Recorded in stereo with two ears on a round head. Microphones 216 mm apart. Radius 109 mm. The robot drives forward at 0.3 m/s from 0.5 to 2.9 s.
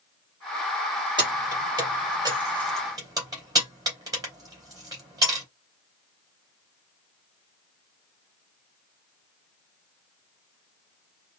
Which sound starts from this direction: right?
Keys jangling, at 1.2 s.